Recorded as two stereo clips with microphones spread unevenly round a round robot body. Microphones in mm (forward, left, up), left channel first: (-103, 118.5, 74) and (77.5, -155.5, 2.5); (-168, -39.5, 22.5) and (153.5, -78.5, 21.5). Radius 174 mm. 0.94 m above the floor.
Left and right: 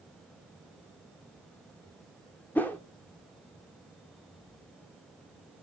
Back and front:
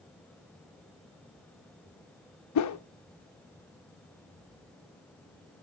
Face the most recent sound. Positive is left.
turn(degrees=-150)